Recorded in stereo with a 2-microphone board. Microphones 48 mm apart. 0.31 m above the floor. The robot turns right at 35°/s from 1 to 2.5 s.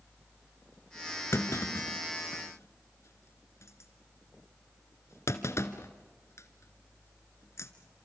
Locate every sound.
1.3 s a clunk: 65° left (ahead or behind), 1.3 m; by 7.7 s 75° left (ahead or behind), 1.3 m